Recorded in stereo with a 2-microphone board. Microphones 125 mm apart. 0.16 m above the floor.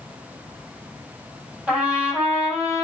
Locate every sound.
1.7 s a trumpet: 10° right (ahead or behind), 5.5 m